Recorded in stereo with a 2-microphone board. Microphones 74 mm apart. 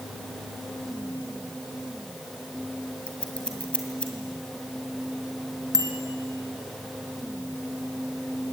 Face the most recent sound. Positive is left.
turn(degrees=-55)  # may be behind; listen again after turning